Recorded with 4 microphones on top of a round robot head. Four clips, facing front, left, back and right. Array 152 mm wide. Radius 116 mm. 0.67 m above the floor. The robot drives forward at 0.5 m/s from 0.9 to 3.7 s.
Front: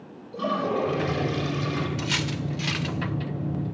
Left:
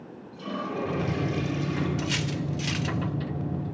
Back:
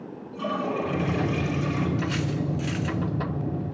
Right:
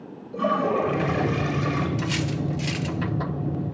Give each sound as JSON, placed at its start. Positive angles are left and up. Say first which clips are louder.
{"t": 0.3, "sound": "a toilet flushing", "louder": "right 10 dB, front 2 dB", "azimuth_deg": -75, "distance_m": 4.5}
{"t": 2.0, "sound": "cutlery clinking", "louder": "right 3 dB, back 2 dB", "azimuth_deg": 10, "distance_m": 1.4}